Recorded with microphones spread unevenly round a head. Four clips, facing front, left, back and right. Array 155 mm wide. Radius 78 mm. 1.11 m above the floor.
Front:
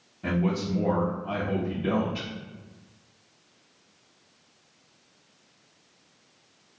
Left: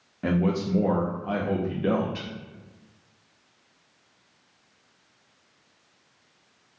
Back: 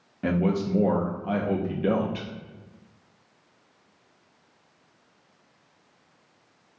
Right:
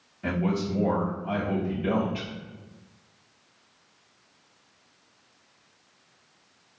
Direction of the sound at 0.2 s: 145° left.